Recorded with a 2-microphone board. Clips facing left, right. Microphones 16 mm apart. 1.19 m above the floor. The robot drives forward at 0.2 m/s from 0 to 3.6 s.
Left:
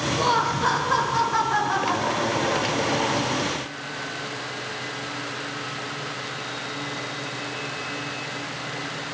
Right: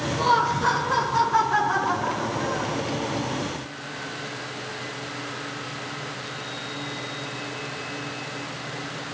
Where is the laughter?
15° left (ahead or behind), 0.8 m; by 2.8 s 10° left (ahead or behind), 1.3 m.